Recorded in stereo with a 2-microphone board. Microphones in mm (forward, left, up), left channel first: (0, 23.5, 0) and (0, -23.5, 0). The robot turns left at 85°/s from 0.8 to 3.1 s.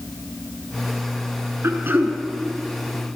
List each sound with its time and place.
1.6 s throat clearing: 105° right, 3.5 m; by 2.2 s 150° right, 3.5 m